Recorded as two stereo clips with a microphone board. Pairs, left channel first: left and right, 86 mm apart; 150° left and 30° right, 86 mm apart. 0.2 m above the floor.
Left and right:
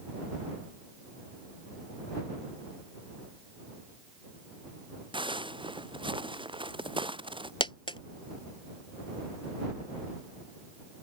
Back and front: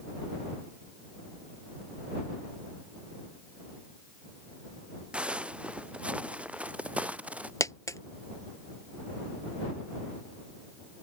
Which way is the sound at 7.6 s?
100° left.